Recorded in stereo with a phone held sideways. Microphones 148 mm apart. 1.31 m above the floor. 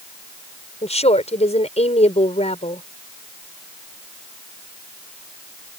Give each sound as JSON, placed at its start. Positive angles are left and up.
{"t": 0.8, "sound": "a woman speaking", "side_deg": 45}